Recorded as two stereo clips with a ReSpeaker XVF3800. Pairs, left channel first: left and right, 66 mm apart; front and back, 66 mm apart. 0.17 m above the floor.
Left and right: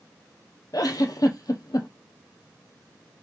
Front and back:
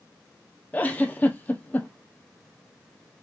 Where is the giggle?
65° left, 1.2 m.